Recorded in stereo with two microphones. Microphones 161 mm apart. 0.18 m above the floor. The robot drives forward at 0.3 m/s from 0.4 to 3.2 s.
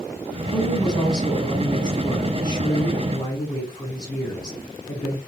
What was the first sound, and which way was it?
A woman speaking, 25° left (ahead or behind).